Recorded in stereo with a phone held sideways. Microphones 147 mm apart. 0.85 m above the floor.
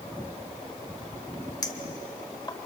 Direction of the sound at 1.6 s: 25° left (ahead or behind).